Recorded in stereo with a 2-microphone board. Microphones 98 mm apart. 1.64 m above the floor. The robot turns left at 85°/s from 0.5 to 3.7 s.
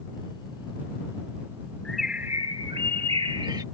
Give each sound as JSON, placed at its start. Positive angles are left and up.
{"t": 1.9, "sound": "a bird", "azimuth_deg": 10}